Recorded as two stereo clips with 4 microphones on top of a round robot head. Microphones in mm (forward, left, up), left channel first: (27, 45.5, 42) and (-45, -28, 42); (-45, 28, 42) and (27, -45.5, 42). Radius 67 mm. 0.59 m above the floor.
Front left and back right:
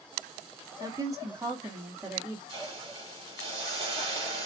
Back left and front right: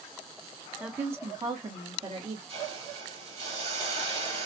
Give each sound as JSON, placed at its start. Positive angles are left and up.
{"t": 0.8, "sound": "a woman speaking", "azimuth_deg": -125, "distance_m": 1.2}
{"t": 2.5, "sound": "a hiss", "azimuth_deg": -85, "distance_m": 2.5}